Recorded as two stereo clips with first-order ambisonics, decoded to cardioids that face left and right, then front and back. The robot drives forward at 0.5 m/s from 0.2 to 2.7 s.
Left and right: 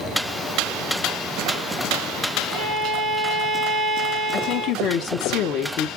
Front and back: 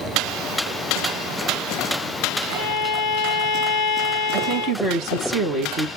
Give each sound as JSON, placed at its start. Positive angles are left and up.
{"t": 2.5, "sound": "a violin", "azimuth_deg": -170, "distance_m": 2.5}
{"t": 4.3, "sound": "a woman speaking", "azimuth_deg": 130, "distance_m": 1.2}